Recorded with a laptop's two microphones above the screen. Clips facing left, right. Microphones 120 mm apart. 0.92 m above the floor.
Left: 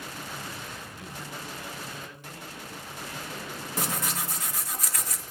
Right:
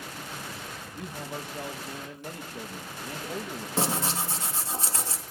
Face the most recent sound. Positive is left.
turn(degrees=-30)  # may be behind; listen again after turning